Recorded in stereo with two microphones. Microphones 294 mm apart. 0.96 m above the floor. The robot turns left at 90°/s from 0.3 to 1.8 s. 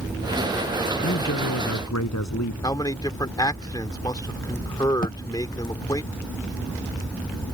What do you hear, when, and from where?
1.0 s a man speaking: 140° left; by 2.5 s 70° left
2.6 s a man speaking: 15° left (ahead or behind)
5.0 s a thud: 30° left (ahead or behind)